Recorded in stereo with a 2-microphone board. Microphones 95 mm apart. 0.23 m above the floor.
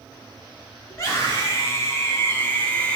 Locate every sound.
0.9 s a scream: 35° left (ahead or behind), 3 m; by 3.0 s 15° left (ahead or behind), 1.5 m